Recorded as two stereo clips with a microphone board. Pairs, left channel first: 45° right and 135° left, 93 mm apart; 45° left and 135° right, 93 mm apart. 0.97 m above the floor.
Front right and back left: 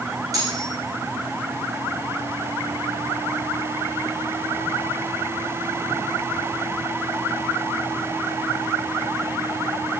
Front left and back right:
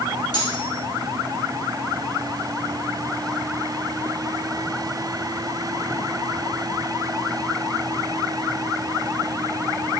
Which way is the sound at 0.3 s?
85° left.